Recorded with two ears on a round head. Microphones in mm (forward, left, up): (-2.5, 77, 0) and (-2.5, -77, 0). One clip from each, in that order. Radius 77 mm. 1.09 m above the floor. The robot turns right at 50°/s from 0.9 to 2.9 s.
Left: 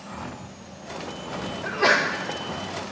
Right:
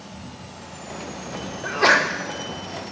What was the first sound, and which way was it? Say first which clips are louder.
A sneeze: right 3 dB; 5° right (ahead or behind).